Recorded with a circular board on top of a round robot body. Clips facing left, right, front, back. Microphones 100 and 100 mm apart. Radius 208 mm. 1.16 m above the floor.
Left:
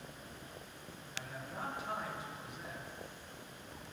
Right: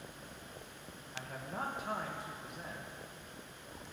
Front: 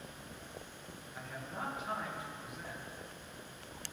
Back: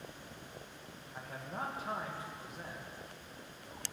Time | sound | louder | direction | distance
1.1 | a man speaking | right 3 dB, back 1 dB | 130° right | 1.8 m